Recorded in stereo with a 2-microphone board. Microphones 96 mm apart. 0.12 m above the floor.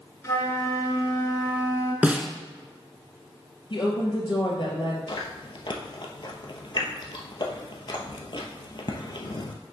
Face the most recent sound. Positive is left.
turn(degrees=55)  # may be behind; listen again after turning